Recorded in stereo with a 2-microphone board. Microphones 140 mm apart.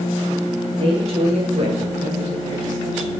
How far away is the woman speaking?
About 2.5 m.